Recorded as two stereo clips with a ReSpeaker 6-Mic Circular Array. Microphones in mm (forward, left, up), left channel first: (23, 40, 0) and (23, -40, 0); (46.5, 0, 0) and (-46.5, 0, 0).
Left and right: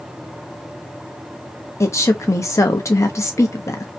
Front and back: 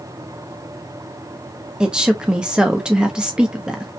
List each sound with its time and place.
1.8 s a woman speaking: 105° left, 0.7 m